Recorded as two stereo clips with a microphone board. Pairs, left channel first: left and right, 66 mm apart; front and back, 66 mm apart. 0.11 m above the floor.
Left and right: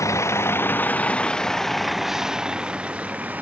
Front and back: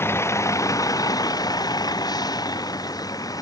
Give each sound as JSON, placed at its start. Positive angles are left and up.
{"t": 0.0, "sound": "a vehicle", "azimuth_deg": 50}